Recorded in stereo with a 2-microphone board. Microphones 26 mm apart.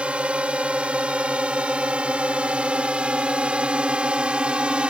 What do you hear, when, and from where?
0.0 s a drone: 60° right (ahead or behind); by 4.9 s 55° right (ahead or behind)